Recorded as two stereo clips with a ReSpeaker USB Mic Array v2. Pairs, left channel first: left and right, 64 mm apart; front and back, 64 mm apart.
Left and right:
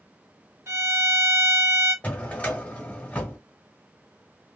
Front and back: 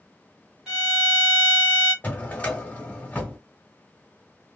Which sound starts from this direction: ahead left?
A drawer, at 2.0 s.